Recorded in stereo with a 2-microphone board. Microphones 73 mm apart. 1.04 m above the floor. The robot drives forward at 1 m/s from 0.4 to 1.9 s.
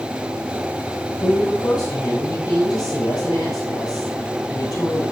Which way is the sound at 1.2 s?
80° left.